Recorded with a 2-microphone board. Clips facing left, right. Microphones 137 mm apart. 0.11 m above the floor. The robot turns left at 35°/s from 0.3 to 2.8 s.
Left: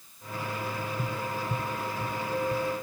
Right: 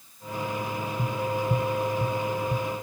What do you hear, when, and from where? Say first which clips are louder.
1.0 s tapping: right 5 dB; 10° right (ahead or behind), 0.7 m; by 2.7 s 50° right (ahead or behind), 0.7 m